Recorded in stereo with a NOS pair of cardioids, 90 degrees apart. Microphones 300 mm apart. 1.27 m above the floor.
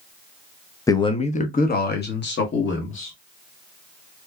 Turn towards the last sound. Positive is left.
turn(degrees=45)